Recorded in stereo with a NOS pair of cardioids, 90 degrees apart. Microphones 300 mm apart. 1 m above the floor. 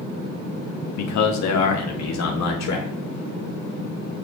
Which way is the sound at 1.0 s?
70° left.